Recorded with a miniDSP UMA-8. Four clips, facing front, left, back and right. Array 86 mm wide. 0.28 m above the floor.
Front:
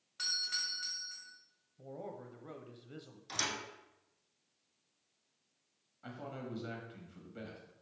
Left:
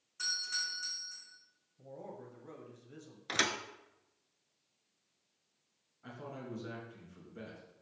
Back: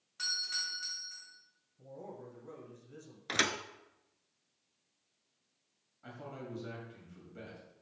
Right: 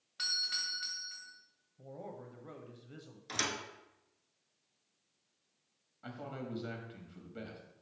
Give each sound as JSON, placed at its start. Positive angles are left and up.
{"t": 0.2, "sound": "a doorbell", "azimuth_deg": -80, "distance_m": 2.0}
{"t": 1.8, "sound": "a man speaking", "azimuth_deg": -20, "distance_m": 1.0}
{"t": 3.3, "sound": "a thud", "azimuth_deg": 150, "distance_m": 0.7}
{"t": 6.0, "sound": "a man speaking", "azimuth_deg": -70, "distance_m": 1.8}